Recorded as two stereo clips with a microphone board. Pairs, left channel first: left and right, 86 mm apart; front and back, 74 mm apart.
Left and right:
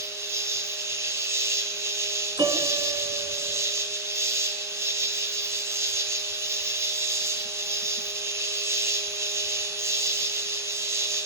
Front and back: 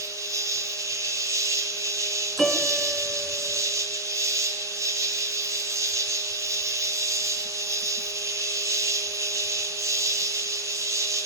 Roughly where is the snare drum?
No snare drum in this recording.